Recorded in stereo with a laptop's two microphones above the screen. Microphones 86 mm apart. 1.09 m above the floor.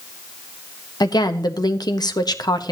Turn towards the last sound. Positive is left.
turn(degrees=55)  # may be behind; listen again after turning